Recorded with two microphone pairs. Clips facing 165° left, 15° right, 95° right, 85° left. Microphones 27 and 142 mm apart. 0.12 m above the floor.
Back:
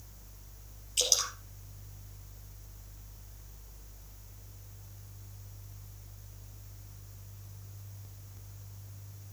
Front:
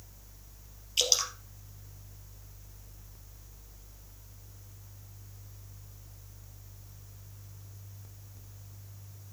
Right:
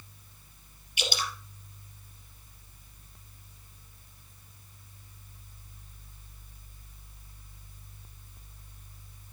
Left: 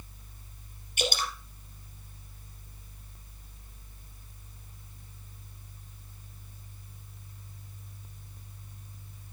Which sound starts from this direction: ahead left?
Dripping, at 1.0 s.